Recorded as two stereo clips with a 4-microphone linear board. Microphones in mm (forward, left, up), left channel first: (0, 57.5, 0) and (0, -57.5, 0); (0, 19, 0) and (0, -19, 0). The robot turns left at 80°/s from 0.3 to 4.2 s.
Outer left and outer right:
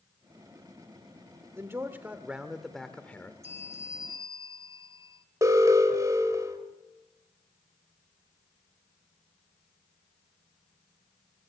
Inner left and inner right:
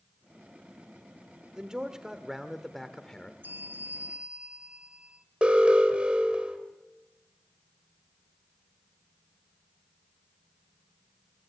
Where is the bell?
75° right, 1.6 m; by 5.2 s 140° right, 1.6 m.